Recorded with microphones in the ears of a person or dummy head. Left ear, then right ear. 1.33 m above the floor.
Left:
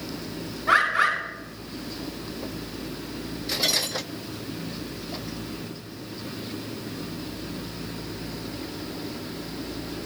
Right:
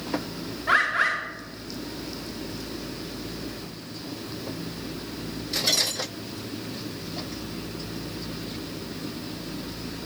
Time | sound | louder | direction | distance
0.7 | a bird | left 1 dB | 5° right (ahead or behind) | 1.9 m